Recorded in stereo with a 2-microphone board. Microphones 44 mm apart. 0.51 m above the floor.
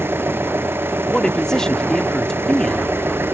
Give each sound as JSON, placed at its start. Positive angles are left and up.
{"t": 0.0, "sound": "an engine running", "side_deg": -70}
{"t": 1.1, "sound": "a man speaking", "side_deg": 15}